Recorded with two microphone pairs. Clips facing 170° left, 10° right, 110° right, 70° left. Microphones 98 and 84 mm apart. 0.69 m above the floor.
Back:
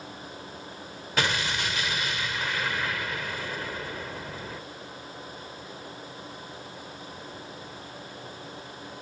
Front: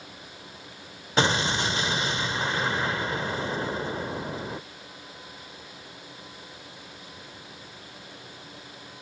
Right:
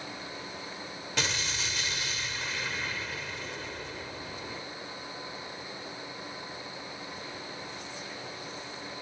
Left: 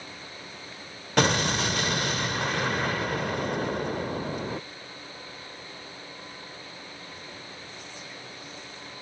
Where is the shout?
No shout in this recording.